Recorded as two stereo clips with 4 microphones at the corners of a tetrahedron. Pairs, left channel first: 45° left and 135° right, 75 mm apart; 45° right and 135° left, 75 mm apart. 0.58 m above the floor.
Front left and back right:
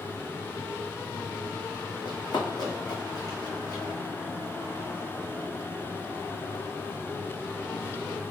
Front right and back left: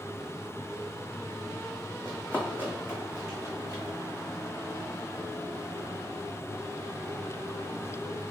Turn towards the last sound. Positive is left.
turn(degrees=5)